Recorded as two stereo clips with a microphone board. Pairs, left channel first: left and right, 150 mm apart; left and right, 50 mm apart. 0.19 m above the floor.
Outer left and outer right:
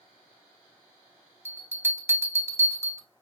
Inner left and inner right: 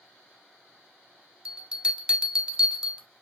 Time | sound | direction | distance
1.4 | a bell | 15° right (ahead or behind) | 0.5 m